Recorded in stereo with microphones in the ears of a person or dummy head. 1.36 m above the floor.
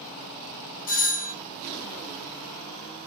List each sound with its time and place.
0.9 s a doorbell: 40° left (ahead or behind), 1.2 m